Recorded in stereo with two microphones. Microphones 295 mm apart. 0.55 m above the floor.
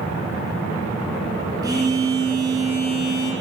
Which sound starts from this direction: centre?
A phone buzzing, at 1.6 s.